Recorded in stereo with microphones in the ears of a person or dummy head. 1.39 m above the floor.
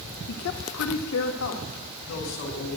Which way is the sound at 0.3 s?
70° left (ahead or behind).